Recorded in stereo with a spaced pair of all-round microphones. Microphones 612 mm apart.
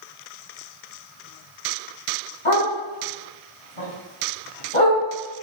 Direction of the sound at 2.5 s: 60° left (ahead or behind).